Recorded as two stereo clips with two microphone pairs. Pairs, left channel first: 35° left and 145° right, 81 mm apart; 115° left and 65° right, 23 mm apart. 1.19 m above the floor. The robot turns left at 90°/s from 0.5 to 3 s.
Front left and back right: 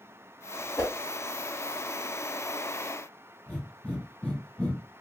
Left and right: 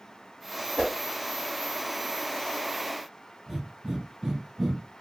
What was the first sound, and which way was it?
A whoosh, 75° left.